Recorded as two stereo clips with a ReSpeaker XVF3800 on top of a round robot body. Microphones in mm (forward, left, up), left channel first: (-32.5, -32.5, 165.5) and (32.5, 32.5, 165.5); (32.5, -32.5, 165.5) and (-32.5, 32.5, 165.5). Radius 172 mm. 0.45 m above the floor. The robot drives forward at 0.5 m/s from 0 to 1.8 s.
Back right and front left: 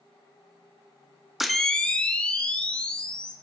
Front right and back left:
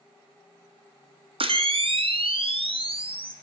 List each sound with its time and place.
1.4 s a camera shutter: 130° left, 0.6 m; by 3.3 s 145° left, 0.7 m